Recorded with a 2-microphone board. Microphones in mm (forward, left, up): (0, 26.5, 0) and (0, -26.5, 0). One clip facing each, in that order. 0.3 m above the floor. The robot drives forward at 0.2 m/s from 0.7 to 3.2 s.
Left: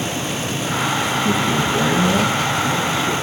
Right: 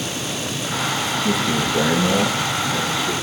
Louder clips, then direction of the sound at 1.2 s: Left 1 dB; 20° left (ahead or behind).